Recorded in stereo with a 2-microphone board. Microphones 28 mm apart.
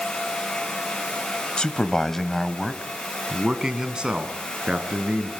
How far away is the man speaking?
About 1.3 m.